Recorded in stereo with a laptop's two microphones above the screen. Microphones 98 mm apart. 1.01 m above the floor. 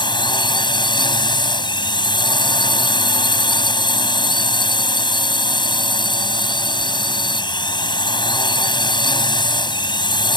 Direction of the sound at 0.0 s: 50° left (ahead or behind).